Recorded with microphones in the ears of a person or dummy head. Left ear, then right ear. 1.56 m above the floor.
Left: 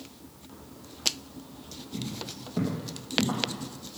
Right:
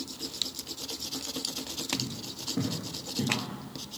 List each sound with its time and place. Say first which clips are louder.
1.9 s footsteps: right 2 dB; 40° left (ahead or behind), 2 m; by 3.4 s 55° left (ahead or behind), 3 m